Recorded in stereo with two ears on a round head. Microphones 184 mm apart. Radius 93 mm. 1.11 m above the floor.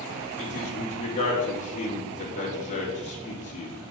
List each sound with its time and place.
0.4 s a man speaking: 35° left (ahead or behind), 2 m